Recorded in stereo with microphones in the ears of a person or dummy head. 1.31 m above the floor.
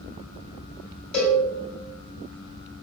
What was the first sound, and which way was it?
A cowbell, 35° left (ahead or behind).